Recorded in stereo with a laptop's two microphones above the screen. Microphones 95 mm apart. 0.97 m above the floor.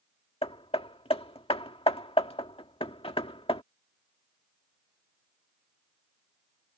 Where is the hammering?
80° left.